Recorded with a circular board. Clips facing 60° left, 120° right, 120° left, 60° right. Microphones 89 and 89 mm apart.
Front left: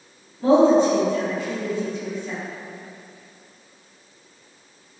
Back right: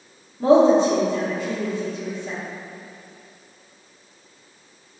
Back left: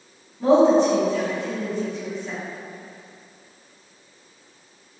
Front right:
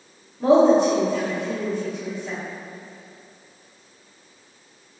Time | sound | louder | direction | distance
0.4 | a woman speaking | back right 1 dB, even | 145° right | 1.1 m